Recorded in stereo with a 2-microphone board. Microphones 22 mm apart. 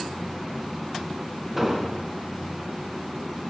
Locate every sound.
1.6 s an explosion: 5° right (ahead or behind), 0.6 m